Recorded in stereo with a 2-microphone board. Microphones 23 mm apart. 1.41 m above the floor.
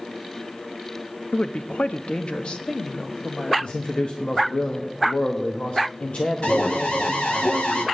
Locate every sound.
1.3 s a woman speaking: 60° left (ahead or behind), 0.6 m; by 3.5 s 30° left (ahead or behind), 1.3 m
3.6 s a man speaking: 60° left (ahead or behind), 1.0 m
6.4 s an alarm: 65° left (ahead or behind), 1.4 m